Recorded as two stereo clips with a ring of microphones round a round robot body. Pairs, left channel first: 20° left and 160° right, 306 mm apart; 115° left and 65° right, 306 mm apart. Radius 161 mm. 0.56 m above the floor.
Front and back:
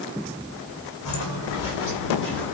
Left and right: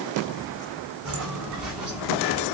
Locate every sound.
1.1 s footsteps: 20° right, 2 m; by 2.5 s 35° right, 3.5 m